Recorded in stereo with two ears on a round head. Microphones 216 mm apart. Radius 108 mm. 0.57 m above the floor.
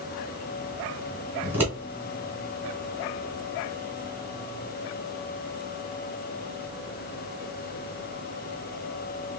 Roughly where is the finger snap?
No finger snap in this recording.